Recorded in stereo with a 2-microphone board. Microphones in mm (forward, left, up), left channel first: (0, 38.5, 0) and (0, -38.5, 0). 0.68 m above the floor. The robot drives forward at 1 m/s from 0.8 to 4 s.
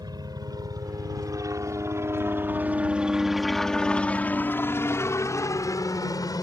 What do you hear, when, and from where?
0.0 s a helicopter: 65° right (ahead or behind); by 6.4 s 55° left (ahead or behind)